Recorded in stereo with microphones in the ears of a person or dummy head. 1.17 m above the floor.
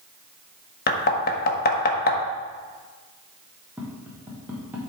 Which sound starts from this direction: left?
Knocking, at 0.9 s.